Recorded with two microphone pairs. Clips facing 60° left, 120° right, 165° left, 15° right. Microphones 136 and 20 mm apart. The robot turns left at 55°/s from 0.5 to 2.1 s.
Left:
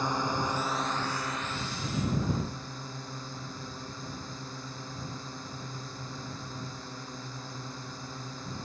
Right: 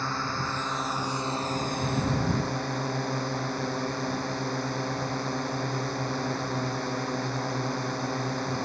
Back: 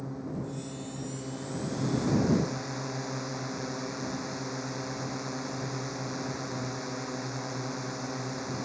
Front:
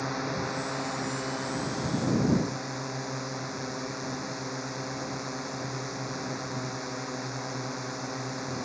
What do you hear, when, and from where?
0.0 s a drone: 10° right; by 8.7 s 100° right